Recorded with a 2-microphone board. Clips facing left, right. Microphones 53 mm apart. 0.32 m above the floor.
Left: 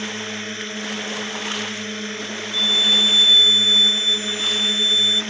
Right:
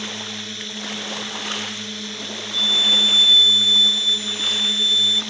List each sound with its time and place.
0.0 s a drone: 40° left (ahead or behind)
2.5 s a violin: centre (ahead or behind)